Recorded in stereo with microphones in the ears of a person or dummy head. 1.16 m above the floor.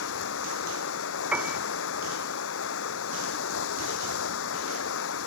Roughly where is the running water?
Left.